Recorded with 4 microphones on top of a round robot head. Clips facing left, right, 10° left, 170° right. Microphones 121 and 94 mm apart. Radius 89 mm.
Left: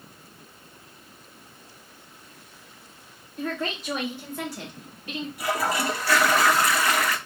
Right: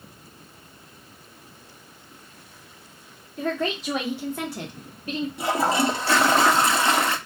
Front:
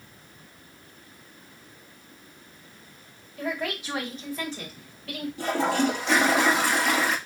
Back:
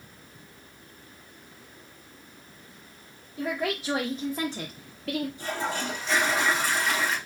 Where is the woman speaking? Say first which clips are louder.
Right 4 dB, back 1 dB; 100° right, 1.9 m; by 5.3 s 150° right, 1.5 m.